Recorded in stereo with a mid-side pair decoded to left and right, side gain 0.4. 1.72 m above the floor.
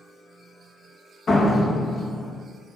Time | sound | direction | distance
1.3 | a door slam | 55° left | 2 m